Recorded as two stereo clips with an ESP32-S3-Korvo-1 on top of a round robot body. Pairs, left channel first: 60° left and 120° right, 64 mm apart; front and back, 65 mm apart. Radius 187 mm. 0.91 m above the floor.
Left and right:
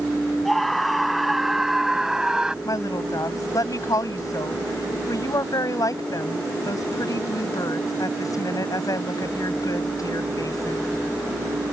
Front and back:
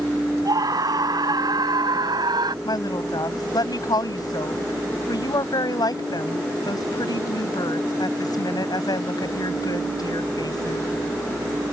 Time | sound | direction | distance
0.5 | a scream | 150° left | ?
2.6 | a woman speaking | 25° left | ?